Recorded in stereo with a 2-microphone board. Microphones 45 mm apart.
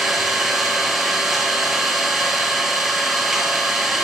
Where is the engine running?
5° right (ahead or behind), 3.5 m.